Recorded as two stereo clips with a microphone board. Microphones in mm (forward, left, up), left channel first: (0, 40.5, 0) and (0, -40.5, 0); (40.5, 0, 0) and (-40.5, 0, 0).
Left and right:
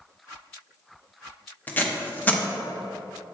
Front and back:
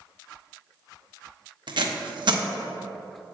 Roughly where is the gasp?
No gasp in this recording.